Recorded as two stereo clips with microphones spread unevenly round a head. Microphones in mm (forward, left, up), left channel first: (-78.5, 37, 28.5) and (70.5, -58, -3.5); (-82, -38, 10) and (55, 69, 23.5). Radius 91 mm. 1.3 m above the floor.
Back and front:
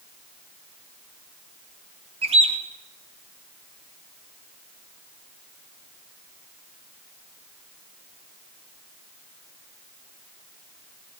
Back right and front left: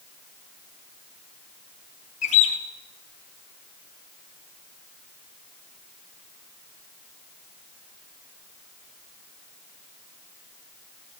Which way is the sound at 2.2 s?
90° right.